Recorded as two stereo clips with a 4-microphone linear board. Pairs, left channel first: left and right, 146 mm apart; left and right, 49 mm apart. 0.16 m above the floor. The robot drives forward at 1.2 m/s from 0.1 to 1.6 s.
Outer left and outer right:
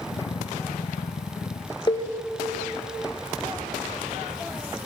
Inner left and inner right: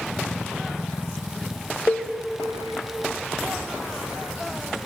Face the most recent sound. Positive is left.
turn(degrees=35)  # may be behind; listen again after turning